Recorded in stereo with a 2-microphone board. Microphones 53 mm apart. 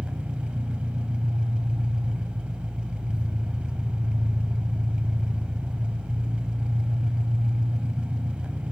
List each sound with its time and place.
0.0 s an engine running: 20° right (ahead or behind), 0.8 m